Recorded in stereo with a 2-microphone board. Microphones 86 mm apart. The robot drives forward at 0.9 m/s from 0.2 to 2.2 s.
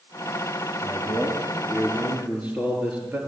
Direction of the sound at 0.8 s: 20° right (ahead or behind).